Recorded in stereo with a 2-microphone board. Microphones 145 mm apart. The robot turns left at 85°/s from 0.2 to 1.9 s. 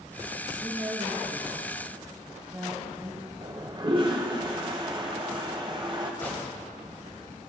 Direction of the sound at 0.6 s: 55° right.